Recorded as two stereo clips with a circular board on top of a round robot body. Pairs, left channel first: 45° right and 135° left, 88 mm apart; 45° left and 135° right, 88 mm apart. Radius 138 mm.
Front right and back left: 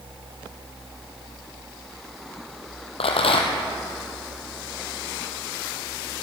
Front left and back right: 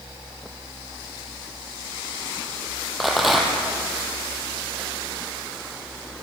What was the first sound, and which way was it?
A rattle, 45° right.